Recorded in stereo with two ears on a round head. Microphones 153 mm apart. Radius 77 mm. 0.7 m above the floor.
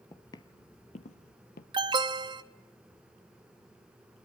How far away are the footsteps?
About 0.9 m.